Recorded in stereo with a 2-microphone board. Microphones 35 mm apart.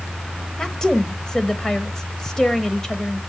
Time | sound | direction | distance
0.6 | a woman speaking | 15° left (ahead or behind) | 0.9 m